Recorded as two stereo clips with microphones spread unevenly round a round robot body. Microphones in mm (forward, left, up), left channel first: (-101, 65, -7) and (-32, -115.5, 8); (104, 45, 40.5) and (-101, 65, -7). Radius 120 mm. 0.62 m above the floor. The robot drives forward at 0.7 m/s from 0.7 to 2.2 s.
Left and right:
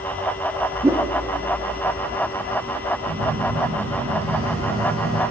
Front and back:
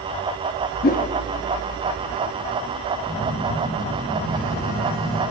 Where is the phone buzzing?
60° right, 6.5 m.